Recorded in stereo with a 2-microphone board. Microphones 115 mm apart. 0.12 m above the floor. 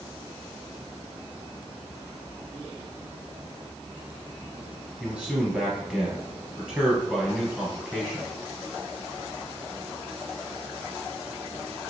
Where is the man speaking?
10° right (ahead or behind), 2.0 m.